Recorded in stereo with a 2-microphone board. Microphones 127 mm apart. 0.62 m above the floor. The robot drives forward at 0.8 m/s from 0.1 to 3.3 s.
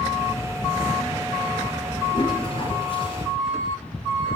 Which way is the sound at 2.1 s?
45° left (ahead or behind).